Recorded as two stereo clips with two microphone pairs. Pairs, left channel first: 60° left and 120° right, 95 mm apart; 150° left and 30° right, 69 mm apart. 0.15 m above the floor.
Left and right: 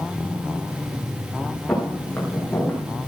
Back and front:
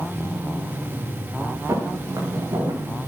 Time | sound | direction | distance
1.7 | footsteps | 5° right | 6.5 m